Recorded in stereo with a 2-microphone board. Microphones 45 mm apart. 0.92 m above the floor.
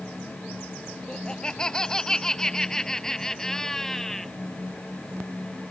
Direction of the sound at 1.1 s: 20° left (ahead or behind).